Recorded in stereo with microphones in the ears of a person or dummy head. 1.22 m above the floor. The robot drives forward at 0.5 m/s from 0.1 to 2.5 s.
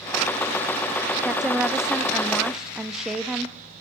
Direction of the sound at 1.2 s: 5° right (ahead or behind).